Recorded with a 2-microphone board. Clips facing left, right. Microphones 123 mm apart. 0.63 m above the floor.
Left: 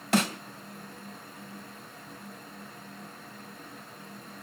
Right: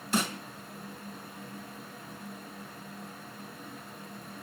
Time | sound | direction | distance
0.1 | a snare drum | 75° left (ahead or behind) | 2.5 m